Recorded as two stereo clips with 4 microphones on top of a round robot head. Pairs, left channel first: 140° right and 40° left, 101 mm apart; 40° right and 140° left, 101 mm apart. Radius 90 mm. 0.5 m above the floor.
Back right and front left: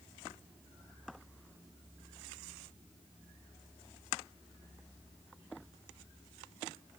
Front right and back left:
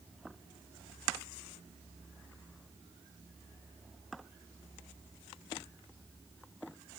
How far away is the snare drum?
No snare drum in this recording.